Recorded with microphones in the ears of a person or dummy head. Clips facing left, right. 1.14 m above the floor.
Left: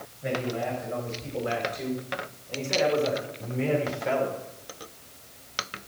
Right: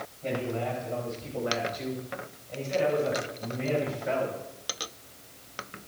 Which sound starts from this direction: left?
A man speaking, at 0.2 s.